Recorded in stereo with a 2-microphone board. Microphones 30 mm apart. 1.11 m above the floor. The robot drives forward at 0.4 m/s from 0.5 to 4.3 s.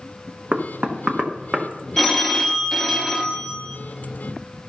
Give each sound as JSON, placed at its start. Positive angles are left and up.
{"t": 0.5, "sound": "knocking", "side_deg": -55, "distance_m": 1.0}
{"t": 2.0, "sound": "a phone ringing", "side_deg": 5, "distance_m": 0.8}